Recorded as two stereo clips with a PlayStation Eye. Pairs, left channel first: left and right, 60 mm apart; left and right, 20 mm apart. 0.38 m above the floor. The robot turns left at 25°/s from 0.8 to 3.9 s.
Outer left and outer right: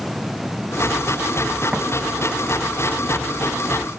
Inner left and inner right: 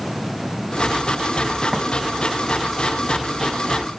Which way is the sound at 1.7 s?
10° right (ahead or behind).